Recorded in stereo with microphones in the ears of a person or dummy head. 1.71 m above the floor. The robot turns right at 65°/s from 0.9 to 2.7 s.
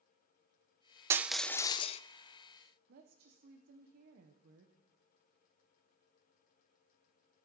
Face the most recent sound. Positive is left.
turn(degrees=-55)  # may be behind; listen again after turning